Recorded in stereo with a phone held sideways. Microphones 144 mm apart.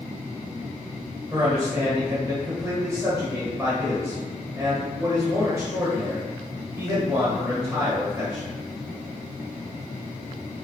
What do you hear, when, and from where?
1.3 s a man speaking: 15° right (ahead or behind), 0.7 m